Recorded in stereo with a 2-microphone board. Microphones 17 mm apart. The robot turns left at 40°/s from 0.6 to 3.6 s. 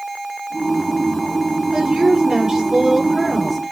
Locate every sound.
1.7 s a woman speaking: 90° right, 5.5 m; by 3.7 s 165° right, 5.5 m